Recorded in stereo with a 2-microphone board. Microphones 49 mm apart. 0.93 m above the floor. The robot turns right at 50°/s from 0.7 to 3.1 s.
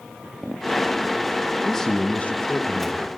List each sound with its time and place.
1.6 s a man speaking: 10° left, 1.1 m; by 3.1 s 80° left, 1.1 m